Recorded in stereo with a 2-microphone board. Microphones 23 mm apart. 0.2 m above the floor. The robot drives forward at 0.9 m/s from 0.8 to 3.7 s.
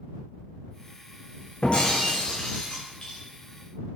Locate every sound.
1.6 s breaking glass: 45° left (ahead or behind), 2.0 m; by 3.2 s 25° left (ahead or behind), 3 m